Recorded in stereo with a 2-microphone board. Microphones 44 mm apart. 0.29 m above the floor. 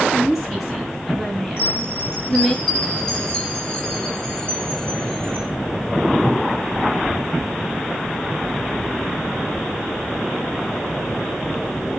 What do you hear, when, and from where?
0.1 s a woman speaking: centre (ahead or behind), 5 m; by 2.6 s 10° left (ahead or behind), 2 m
1.6 s a chime: 15° left (ahead or behind), 4 m